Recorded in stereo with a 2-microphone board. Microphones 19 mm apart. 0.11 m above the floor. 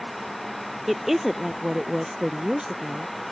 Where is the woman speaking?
10° right (ahead or behind); by 3.3 s 45° right (ahead or behind).